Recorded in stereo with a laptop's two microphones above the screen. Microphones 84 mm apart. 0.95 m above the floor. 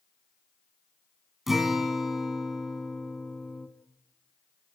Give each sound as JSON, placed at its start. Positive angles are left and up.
{"t": 1.5, "sound": "a guitar", "side_deg": -5, "distance_m": 3.0}